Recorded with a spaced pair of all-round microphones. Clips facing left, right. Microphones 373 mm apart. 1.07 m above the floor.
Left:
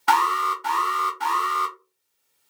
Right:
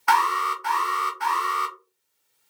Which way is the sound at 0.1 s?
50° left (ahead or behind).